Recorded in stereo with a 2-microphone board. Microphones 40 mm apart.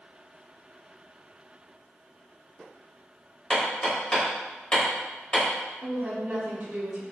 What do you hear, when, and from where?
3.5 s hammering: 25° left (ahead or behind), 1.5 m
5.8 s a woman speaking: 40° right (ahead or behind), 0.8 m